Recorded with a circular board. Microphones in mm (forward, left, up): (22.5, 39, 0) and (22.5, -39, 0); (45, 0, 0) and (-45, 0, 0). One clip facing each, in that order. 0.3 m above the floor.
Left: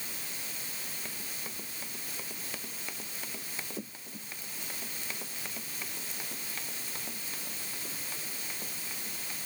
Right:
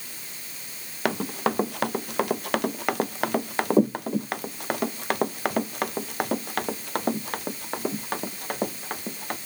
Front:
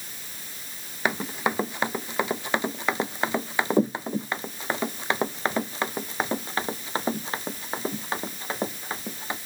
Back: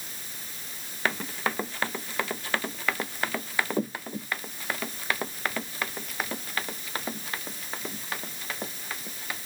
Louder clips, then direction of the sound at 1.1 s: Right 19 dB, front 3 dB; 75° right.